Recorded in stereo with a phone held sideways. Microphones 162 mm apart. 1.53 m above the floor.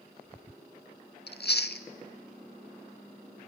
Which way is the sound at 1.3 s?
80° left.